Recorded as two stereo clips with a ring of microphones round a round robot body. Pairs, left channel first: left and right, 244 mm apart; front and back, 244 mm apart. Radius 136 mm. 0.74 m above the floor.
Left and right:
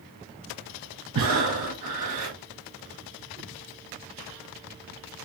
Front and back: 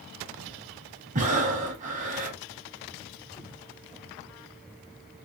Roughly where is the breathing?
Behind right.